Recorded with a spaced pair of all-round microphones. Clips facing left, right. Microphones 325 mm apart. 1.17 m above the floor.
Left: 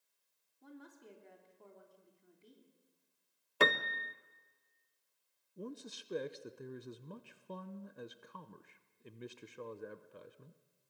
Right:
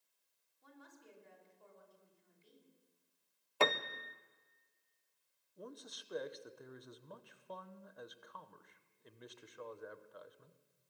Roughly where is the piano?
Left.